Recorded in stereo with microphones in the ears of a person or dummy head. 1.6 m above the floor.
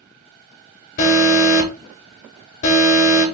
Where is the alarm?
40° left (ahead or behind), 2 m.